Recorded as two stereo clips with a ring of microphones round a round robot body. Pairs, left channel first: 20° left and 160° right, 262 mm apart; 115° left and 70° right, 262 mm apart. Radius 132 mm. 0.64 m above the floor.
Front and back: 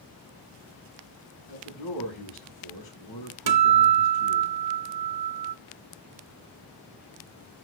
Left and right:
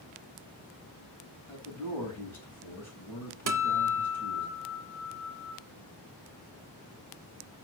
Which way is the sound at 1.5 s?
30° left.